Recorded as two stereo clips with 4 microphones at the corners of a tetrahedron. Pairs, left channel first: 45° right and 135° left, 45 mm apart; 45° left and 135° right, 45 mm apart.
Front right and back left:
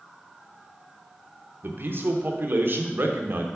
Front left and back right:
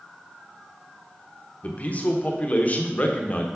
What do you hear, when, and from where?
1.6 s a man speaking: 100° left, 1.0 m